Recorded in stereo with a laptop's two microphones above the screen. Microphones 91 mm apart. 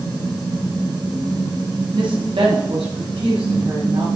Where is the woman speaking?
70° right (ahead or behind), 1.3 m; by 4.1 s 85° right, 2.5 m.